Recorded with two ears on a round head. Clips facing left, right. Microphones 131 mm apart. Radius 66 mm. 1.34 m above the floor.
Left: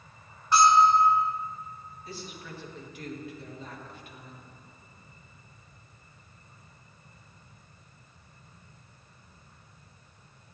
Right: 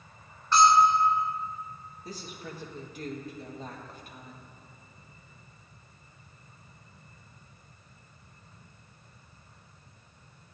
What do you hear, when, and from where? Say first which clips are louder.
0.5 s a bell: left 1 dB; 15° left (ahead or behind), 2.5 m
2.0 s a woman speaking: right 1 dB; 35° right (ahead or behind), 1.5 m